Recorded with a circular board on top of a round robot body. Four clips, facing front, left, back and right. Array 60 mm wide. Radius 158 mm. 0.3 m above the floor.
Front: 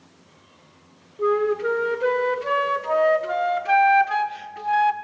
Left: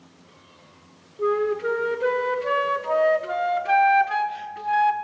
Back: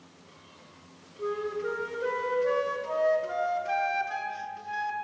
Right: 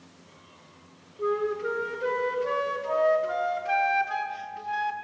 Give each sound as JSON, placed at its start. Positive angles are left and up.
{"t": 1.2, "sound": "a flute", "azimuth_deg": 30, "distance_m": 0.8}